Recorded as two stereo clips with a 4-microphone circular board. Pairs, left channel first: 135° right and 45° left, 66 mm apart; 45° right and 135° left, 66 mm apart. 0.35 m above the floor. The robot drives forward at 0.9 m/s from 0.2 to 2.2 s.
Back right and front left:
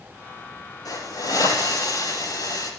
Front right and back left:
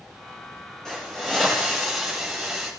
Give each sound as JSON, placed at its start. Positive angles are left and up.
{"t": 0.8, "sound": "a hiss", "azimuth_deg": -125, "distance_m": 6.5}